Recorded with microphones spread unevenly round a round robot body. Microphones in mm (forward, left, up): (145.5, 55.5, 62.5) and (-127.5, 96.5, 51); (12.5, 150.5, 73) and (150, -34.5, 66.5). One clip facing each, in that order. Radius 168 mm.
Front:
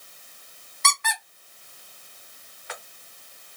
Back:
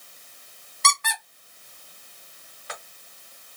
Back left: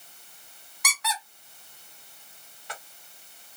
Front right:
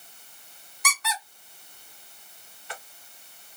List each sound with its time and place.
0.8 s a squeak: 125° left, 1.4 m